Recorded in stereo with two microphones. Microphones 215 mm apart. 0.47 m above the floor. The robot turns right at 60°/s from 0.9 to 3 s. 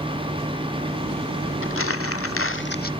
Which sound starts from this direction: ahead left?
Crumpling, at 1.6 s.